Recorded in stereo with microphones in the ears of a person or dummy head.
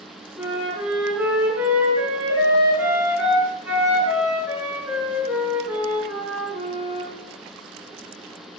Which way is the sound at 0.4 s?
10° right (ahead or behind).